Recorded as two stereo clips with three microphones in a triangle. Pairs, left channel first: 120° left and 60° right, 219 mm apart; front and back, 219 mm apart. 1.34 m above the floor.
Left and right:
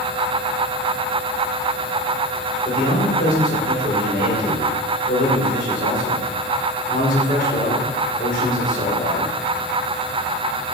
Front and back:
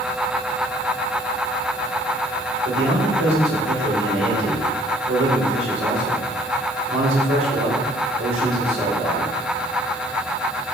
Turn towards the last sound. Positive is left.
turn(degrees=170)